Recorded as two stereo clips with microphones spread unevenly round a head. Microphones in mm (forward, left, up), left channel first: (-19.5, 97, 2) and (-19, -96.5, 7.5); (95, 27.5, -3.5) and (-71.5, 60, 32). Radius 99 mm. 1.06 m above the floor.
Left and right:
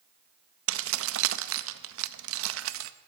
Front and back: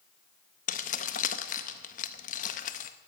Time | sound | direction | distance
0.7 | keys jangling | 70° right | 0.6 m